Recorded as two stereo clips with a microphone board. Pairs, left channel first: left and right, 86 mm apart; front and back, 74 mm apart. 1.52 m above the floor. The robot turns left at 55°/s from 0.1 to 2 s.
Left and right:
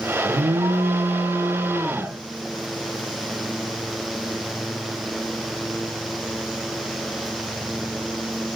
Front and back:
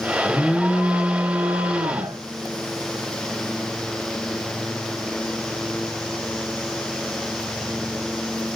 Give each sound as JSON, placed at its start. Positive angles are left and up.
{"t": 0.2, "sound": "an alarm", "azimuth_deg": -70, "distance_m": 2.5}